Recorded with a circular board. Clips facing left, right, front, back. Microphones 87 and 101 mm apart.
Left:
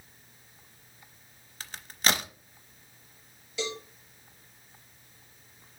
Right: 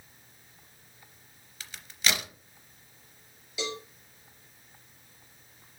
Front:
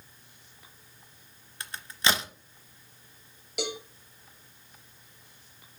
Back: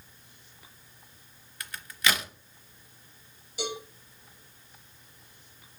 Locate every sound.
1.6 s a crack: 55° left, 0.8 m
3.6 s a cowbell: 5° right, 2.5 m